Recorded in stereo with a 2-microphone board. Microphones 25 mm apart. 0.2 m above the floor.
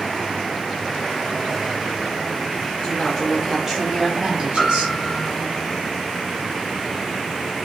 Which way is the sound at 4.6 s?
15° left (ahead or behind).